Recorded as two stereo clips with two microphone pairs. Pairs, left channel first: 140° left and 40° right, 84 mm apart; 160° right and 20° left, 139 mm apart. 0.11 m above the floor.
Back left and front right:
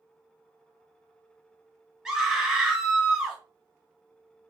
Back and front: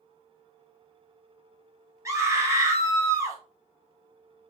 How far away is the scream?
About 1.2 m.